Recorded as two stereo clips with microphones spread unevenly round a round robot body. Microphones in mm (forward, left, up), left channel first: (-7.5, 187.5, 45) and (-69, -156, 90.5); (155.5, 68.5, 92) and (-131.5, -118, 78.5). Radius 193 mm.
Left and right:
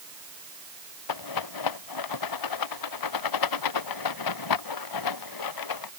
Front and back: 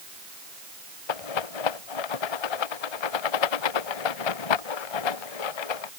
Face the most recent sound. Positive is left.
turn(degrees=40)